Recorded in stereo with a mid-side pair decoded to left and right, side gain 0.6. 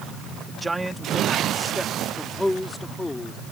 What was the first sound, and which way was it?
A man speaking, 20° right.